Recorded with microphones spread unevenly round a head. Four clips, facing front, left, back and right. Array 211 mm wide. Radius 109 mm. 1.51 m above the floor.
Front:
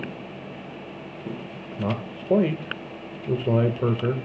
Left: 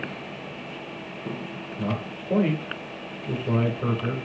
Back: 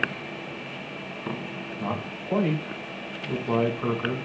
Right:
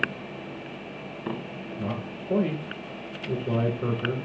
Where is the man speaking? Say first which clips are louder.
Left 3 dB, front 3 dB; 5° right, 1.8 m.